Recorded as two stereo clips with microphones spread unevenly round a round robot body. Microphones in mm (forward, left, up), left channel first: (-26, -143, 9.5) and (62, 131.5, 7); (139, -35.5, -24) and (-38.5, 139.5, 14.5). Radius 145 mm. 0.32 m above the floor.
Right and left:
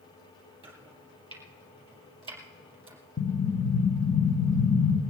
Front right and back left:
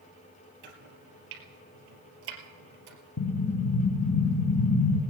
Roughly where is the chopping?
Behind left.